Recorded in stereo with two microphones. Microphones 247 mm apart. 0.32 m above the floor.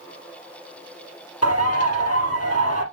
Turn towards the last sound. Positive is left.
turn(degrees=75)  # may be behind; listen again after turning